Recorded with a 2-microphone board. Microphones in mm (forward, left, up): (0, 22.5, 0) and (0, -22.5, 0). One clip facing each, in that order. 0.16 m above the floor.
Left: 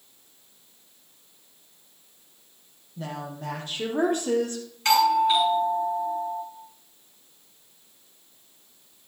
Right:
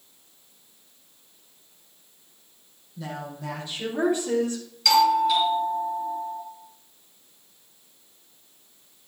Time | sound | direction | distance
3.0 | a woman speaking | 45° left (ahead or behind) | 5 m
4.8 | a doorbell | 35° left (ahead or behind) | 4 m